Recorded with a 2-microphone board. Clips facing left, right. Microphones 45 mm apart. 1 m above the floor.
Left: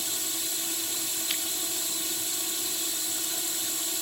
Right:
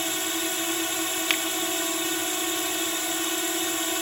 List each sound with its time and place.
0.0 s a drone: 50° right (ahead or behind)
1.3 s a finger snap: 65° right (ahead or behind)